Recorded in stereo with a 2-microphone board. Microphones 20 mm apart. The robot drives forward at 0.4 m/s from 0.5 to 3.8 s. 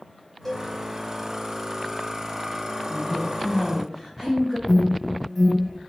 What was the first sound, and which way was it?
A cowbell, 15° left (ahead or behind).